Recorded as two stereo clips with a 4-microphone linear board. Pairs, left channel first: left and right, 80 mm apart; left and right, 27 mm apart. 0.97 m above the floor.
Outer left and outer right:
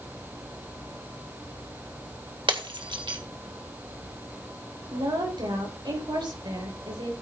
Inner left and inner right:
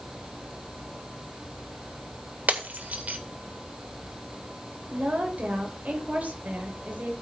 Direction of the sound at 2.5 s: 80° right.